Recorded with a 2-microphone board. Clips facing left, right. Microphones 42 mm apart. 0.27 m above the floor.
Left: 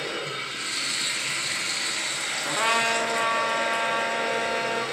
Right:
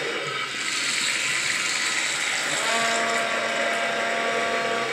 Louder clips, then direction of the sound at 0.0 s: Right 3 dB; 65° right (ahead or behind).